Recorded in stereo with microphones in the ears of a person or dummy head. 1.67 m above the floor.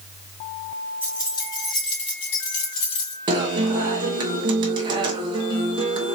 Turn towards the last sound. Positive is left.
turn(degrees=-30)  # may be behind; listen again after turning